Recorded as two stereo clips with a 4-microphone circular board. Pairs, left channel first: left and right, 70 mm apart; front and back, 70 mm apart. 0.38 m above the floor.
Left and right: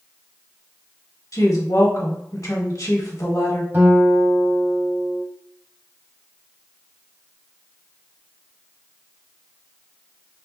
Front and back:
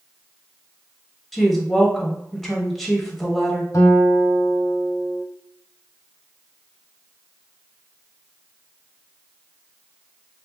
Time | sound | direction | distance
1.3 | a woman speaking | 90° left | 1.8 m
3.7 | a guitar | 35° right | 1.2 m